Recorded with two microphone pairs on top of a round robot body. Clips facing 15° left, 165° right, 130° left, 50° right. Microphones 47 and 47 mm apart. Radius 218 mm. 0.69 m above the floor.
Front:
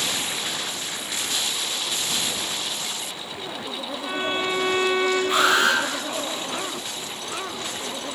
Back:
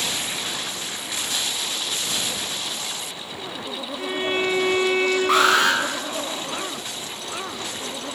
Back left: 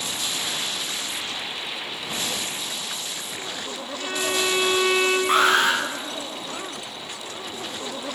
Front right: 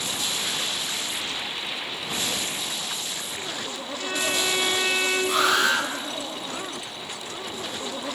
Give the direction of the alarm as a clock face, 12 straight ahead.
6 o'clock.